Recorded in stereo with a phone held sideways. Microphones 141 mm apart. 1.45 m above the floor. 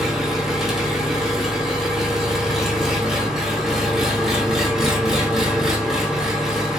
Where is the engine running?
Centre (ahead or behind), 1.0 m.